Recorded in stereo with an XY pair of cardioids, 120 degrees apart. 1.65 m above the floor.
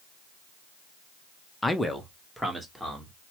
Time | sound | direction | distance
1.6 | a man speaking | 15° left | 0.7 m